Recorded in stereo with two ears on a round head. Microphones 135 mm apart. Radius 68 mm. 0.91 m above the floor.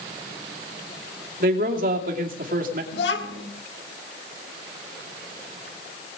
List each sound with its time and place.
1.4 s a man speaking: 60° right (ahead or behind), 2.5 m
2.9 s a child speaking: 85° left, 1.5 m